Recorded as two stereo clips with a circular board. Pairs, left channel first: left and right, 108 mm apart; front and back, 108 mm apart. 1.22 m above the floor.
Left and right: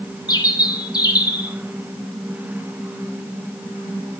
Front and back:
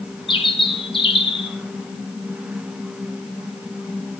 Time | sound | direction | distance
0.3 | a bird | 40° left | 1.0 m